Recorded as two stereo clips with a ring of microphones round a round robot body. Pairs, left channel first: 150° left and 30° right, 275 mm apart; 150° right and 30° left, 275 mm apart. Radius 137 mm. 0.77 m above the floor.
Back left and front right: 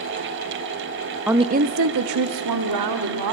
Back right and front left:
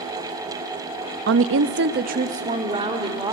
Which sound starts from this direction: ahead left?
A woman speaking, at 1.3 s.